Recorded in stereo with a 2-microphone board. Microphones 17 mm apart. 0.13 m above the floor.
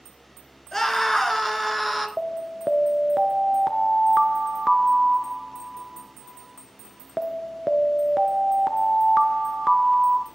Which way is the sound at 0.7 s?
20° left (ahead or behind).